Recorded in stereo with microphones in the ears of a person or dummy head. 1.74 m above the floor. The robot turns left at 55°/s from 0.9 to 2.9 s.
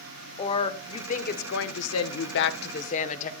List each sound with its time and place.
0.4 s a woman speaking: 150° left, 0.8 m; by 3.3 s 40° left, 0.8 m